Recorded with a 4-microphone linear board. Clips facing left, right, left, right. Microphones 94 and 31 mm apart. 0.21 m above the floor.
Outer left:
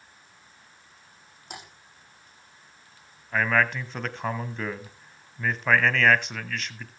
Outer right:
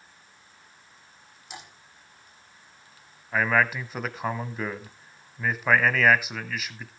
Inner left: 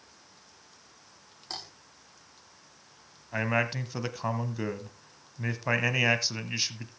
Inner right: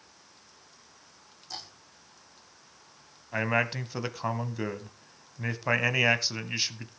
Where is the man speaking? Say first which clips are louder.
Even, inner right 1 dB; 5° right (ahead or behind), 1.1 m.